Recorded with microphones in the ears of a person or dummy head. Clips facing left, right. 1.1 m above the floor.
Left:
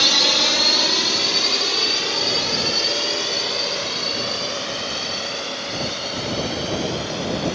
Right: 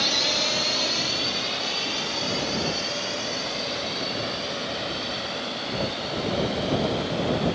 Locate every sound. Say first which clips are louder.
0.0 s a drone: left 4 dB; 60° left (ahead or behind); by 7.6 s 55° left (ahead or behind)